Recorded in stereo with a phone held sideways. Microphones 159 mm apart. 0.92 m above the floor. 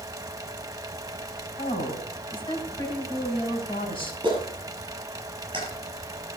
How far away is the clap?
About 7 m.